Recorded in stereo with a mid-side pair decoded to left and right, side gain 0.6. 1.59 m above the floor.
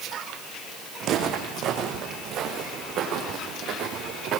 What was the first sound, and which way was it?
Footsteps, 60° right.